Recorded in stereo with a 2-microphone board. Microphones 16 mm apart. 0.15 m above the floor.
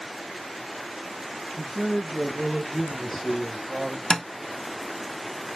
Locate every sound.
1.6 s a man speaking: centre (ahead or behind), 2.5 m; by 4.0 s 40° left (ahead or behind), 1.8 m
4.1 s tapping: 55° left (ahead or behind), 0.6 m